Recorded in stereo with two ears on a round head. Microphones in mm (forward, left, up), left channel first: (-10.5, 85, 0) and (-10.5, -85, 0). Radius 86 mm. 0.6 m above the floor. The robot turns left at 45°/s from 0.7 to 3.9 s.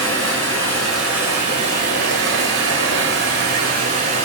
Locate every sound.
0.0 s running water: 10° left, 1.4 m; by 4.2 s 135° right, 1.4 m